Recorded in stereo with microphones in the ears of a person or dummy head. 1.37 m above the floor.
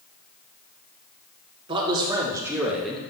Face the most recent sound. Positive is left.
turn(degrees=5)  # may be behind; listen again after turning